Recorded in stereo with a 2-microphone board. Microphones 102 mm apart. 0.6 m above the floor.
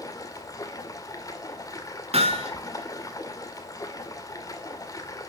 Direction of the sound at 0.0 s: 35° left (ahead or behind).